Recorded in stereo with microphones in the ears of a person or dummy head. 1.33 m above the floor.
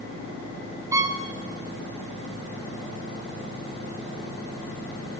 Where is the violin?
10° right (ahead or behind), 1.4 m.